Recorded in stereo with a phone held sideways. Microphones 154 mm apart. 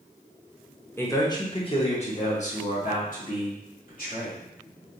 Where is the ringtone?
I don't hear a ringtone.